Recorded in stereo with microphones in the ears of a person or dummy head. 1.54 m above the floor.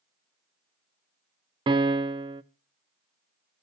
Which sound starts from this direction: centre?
A piano, at 1.7 s.